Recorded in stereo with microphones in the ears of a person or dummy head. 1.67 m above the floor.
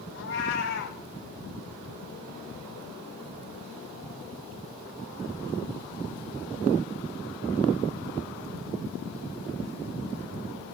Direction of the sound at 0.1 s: 75° left (ahead or behind).